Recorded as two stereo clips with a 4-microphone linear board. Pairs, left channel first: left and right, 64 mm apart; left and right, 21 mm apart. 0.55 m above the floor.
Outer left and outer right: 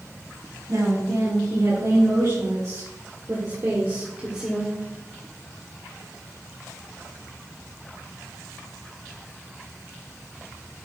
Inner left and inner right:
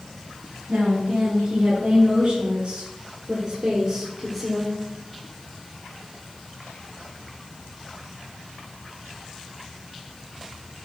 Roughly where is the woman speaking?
Right.